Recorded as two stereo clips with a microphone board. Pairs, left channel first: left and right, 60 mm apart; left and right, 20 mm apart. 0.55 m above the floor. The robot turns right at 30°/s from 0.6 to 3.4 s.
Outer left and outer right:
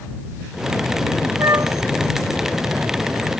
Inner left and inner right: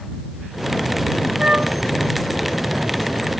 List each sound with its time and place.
1.4 s a flute: 55° right (ahead or behind); by 1.8 s 45° right (ahead or behind)